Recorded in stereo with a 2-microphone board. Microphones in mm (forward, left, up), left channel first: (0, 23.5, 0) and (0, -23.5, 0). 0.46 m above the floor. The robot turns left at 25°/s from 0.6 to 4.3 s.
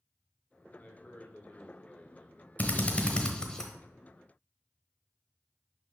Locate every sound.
0.8 s a man speaking: 75° left, 1.4 m; by 2.5 s 30° left, 1.4 m
2.6 s a drill: 35° left (ahead or behind), 1.2 m; by 3.7 s 10° left (ahead or behind), 1.2 m